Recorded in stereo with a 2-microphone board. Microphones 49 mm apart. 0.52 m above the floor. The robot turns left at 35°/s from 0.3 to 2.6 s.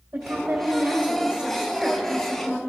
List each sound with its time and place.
0.1 s a woman speaking: 125° right, 2.5 m; by 2.6 s 155° left, 2.5 m